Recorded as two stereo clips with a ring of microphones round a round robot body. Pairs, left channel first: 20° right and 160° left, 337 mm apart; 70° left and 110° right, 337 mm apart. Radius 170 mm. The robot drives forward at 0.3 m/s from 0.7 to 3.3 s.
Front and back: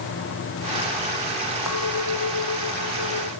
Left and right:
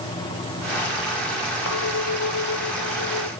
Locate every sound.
1.7 s a clink: 20° left